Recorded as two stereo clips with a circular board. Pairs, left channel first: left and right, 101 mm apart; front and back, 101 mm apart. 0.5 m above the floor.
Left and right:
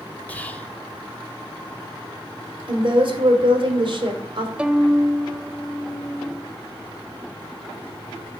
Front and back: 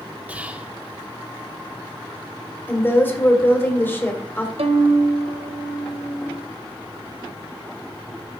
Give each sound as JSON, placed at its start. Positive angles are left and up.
{"t": 0.3, "sound": "whispering", "azimuth_deg": 130, "distance_m": 0.7}
{"t": 2.7, "sound": "a woman speaking", "azimuth_deg": -65, "distance_m": 2.5}
{"t": 4.6, "sound": "a violin", "azimuth_deg": -170, "distance_m": 0.8}